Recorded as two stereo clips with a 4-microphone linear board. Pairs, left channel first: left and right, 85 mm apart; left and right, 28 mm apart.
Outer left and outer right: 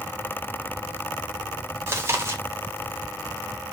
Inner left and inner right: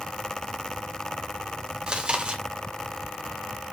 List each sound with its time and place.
1.9 s chewing: 35° right (ahead or behind), 1.5 m